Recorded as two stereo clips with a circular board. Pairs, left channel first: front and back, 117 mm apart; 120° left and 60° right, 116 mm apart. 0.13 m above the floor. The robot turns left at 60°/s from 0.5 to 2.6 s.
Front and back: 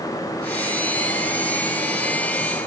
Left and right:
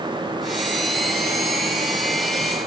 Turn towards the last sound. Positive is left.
No sound to turn to.